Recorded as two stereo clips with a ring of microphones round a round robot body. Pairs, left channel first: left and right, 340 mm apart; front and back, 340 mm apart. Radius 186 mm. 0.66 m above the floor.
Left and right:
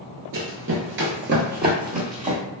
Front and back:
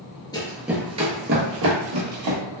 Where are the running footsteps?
70° right, 0.7 m; by 2.4 s 155° right, 1.2 m.